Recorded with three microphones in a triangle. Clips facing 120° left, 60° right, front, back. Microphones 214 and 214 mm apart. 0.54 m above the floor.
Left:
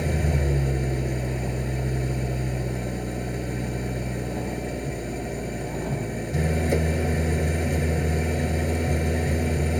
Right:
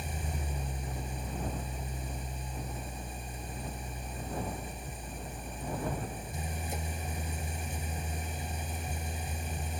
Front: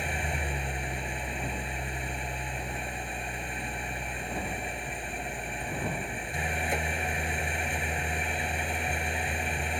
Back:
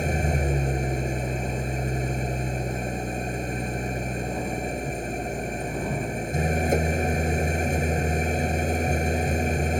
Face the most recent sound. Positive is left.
turn(degrees=135)